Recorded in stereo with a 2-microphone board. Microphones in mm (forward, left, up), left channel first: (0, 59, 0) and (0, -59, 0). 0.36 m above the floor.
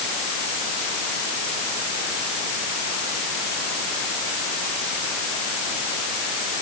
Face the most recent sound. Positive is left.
No sound to turn to.